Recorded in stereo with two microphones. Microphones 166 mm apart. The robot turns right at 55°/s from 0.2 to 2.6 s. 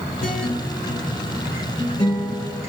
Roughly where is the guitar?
Ahead left.